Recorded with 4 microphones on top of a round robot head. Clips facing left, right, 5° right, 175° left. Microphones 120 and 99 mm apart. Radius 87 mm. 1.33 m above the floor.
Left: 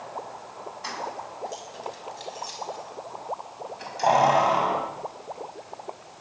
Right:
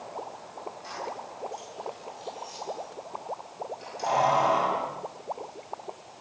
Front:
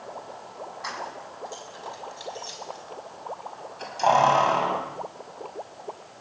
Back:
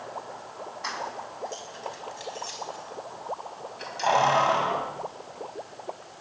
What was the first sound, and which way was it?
Keys jangling, 80° left.